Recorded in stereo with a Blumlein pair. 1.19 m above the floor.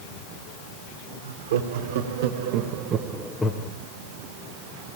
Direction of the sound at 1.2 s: 65° right.